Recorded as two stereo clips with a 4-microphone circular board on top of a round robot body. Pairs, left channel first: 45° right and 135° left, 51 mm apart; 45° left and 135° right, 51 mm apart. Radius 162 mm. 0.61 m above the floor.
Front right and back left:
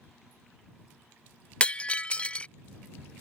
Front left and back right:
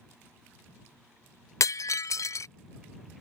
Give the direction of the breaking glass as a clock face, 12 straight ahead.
11 o'clock.